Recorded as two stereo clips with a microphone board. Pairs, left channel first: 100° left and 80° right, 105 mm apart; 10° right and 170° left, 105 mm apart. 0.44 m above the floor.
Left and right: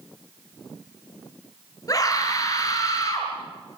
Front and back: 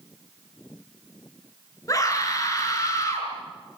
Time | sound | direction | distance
1.9 | a scream | 45° left | 8.5 m